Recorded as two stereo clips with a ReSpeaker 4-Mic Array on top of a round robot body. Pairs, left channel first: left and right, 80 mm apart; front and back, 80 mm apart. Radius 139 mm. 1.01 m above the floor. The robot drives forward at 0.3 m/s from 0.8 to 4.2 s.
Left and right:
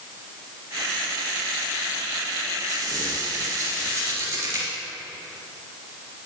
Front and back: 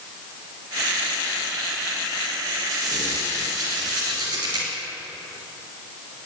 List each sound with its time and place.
2.7 s a squeak: 135° right, 1.5 m; by 4.7 s 145° right, 1.8 m